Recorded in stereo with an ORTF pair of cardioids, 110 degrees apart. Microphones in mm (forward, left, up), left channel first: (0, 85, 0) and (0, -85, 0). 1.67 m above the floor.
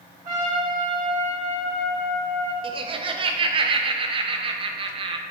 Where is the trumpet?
55° right, 1.8 m.